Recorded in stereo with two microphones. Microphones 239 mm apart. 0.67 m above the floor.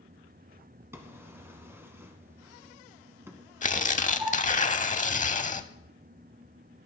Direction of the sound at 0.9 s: 10° right (ahead or behind).